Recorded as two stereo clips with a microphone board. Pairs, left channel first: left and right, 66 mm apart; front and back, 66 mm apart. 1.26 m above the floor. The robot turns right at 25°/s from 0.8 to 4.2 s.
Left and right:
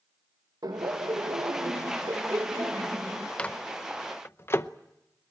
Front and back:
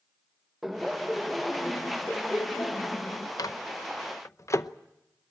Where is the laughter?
95° right, 1.0 m; by 3.3 s 35° right, 1.0 m.